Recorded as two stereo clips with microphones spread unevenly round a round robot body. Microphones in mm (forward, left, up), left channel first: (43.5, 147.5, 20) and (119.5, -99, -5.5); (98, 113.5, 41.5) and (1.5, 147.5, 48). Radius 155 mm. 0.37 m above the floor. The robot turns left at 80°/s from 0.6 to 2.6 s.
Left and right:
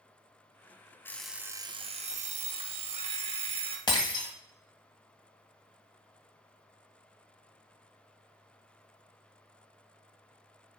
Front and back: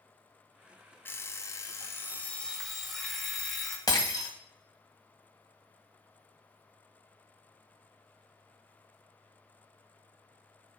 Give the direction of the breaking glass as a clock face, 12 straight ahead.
11 o'clock.